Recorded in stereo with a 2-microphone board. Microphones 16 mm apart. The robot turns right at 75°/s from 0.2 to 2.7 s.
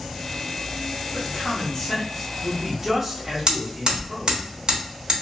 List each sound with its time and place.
1.1 s a man speaking: 75° left, 1.0 m; by 4.5 s 170° right, 1.0 m
3.5 s hammering: 50° right (ahead or behind), 1.3 m